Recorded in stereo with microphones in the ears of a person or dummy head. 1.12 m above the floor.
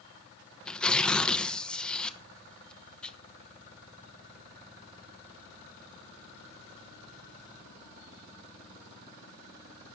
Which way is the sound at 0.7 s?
Centre (ahead or behind).